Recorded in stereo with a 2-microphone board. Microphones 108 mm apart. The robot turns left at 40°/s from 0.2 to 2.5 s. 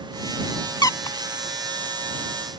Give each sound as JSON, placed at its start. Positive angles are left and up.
{"t": 0.8, "sound": "a squeak", "side_deg": 40}